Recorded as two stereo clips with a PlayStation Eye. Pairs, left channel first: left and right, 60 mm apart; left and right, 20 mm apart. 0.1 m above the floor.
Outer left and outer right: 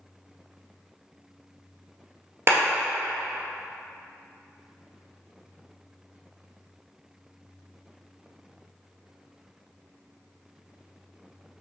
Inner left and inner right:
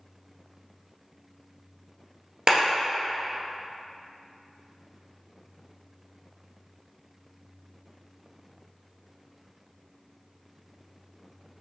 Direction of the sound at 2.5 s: 45° right (ahead or behind).